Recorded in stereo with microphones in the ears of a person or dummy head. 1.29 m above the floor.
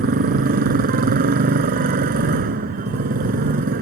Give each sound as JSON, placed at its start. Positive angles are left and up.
{"t": 0.0, "sound": "a motorcycle", "side_deg": -45}